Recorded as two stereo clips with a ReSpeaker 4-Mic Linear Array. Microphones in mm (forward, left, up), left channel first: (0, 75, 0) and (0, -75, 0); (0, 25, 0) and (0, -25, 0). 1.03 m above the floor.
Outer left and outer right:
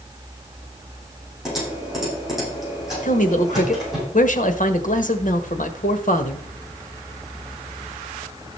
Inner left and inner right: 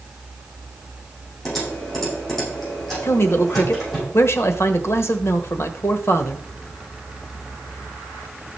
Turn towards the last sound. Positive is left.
turn(degrees=60)  # may be behind; listen again after turning